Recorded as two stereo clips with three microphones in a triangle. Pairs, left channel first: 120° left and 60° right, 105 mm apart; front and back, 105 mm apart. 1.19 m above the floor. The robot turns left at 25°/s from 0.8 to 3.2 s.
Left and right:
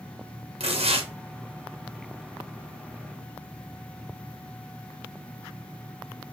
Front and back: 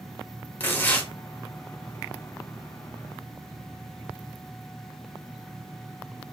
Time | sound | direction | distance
0.6 | tearing paper | 70° right | 1.0 m